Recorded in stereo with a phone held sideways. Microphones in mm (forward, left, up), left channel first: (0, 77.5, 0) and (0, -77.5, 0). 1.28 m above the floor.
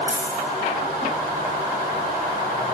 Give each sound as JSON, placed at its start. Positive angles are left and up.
{"t": 0.1, "sound": "a dropped coin", "side_deg": 20, "distance_m": 5.0}